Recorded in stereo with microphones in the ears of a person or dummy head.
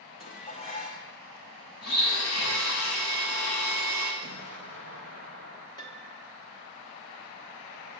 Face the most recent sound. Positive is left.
turn(degrees=25)  # may be behind; listen again after turning